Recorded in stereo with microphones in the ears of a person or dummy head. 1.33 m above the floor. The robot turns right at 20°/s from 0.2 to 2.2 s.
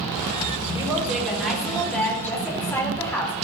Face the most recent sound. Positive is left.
turn(degrees=10)  # may be behind; listen again after turning